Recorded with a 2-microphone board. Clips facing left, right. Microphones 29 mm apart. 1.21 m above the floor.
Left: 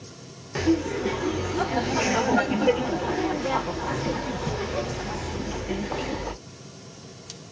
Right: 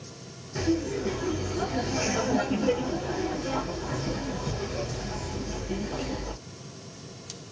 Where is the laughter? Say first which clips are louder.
Left 4 dB; 75° left (ahead or behind), 0.9 m.